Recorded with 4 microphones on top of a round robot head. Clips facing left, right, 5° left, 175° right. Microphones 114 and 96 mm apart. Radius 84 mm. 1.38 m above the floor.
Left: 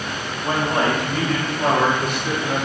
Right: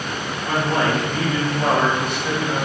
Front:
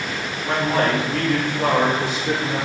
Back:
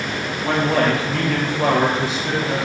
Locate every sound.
0.4 s a man speaking: 160° left, 1.2 m; by 2.7 s 150° right, 1.6 m